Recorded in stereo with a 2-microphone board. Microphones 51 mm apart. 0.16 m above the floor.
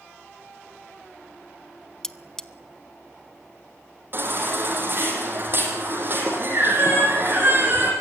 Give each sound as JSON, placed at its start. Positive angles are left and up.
{"t": 2.0, "sound": "cutlery clinking", "side_deg": 15, "distance_m": 0.6}
{"t": 4.1, "sound": "a baby crying", "side_deg": -45, "distance_m": 5.0}